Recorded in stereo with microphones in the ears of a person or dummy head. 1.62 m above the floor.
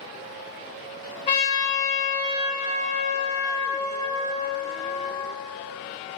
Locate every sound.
1.3 s a trumpet: 25° left (ahead or behind), 1.4 m